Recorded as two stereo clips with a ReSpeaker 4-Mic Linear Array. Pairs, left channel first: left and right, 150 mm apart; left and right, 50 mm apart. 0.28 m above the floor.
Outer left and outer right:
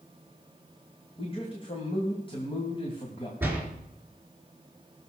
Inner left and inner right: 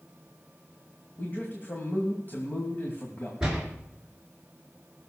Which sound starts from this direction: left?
A man speaking, at 1.2 s.